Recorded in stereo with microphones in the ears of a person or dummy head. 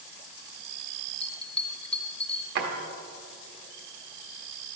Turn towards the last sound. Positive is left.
turn(degrees=-55)  # may be behind; listen again after turning